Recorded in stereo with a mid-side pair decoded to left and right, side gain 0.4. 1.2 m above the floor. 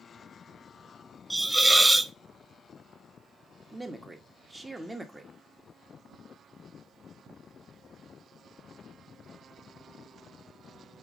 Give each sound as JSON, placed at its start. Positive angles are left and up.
{"t": 1.3, "sound": "a hiss", "azimuth_deg": -5, "distance_m": 0.6}
{"t": 3.7, "sound": "a man speaking", "azimuth_deg": -10, "distance_m": 1.4}